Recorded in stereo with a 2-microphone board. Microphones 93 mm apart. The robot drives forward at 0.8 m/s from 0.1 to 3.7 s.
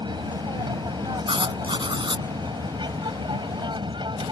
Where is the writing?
65° right (ahead or behind); by 2.2 s 60° right (ahead or behind).